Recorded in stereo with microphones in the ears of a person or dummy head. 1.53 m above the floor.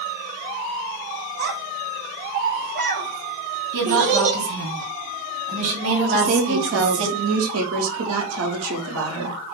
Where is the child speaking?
75° right (ahead or behind), 2.5 m; by 4.4 s 45° right (ahead or behind), 1.9 m.